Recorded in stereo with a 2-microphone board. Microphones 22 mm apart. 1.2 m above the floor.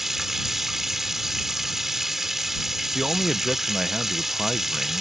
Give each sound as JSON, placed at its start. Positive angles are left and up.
{"t": 0.0, "sound": "running water", "side_deg": -20}
{"t": 3.0, "sound": "a man speaking", "side_deg": -30}